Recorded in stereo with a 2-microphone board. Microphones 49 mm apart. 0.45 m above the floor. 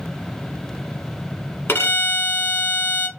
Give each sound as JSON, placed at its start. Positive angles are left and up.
{"t": 1.7, "sound": "a violin", "side_deg": 50, "distance_m": 0.7}